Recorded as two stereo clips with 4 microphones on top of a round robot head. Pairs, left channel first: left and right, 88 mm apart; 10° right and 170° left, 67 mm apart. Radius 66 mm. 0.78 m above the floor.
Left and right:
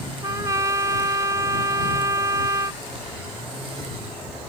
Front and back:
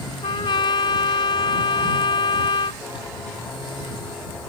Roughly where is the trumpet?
Ahead right.